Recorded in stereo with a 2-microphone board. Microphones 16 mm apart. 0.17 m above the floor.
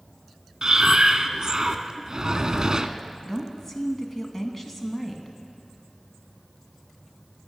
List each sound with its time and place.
0.6 s breathing: 40° right (ahead or behind), 0.5 m
3.2 s a woman speaking: 20° left (ahead or behind), 1.2 m